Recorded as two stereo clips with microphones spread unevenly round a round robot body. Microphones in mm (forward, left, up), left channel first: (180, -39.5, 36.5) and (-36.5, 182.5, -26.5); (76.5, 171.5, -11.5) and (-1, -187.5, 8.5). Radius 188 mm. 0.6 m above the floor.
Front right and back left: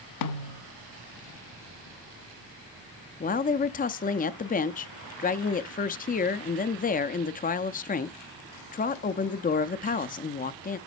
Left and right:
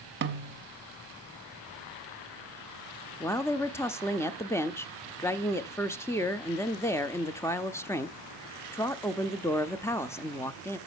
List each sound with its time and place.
0.2 s a snare drum: 50° right, 0.9 m
3.2 s a woman speaking: 10° left, 0.6 m